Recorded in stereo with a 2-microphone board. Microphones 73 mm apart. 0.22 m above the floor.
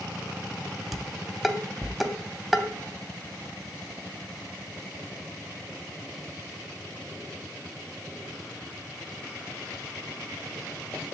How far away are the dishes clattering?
About 0.7 m.